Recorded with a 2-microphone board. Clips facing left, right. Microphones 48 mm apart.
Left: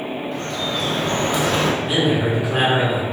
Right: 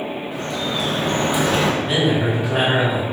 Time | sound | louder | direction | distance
0.3 | dripping | right 2 dB | 5° right (ahead or behind) | 1.0 m
1.8 | a man speaking | even | 5° left (ahead or behind) | 1.6 m